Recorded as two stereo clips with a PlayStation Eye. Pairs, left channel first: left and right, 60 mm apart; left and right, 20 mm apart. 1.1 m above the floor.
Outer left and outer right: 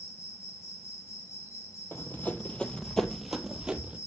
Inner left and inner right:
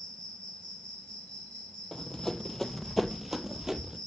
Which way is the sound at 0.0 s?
55° left (ahead or behind).